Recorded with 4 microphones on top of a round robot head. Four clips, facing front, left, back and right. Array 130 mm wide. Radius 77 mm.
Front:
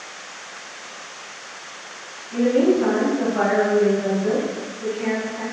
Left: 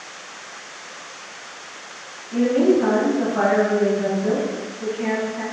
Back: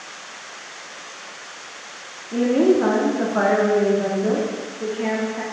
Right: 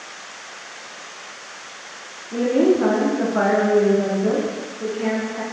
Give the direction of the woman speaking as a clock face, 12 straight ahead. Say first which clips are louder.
Even, back 1 dB; 5 o'clock.